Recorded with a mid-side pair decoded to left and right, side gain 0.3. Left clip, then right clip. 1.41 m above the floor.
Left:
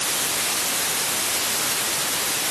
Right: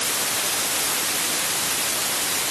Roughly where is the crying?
I don't hear crying.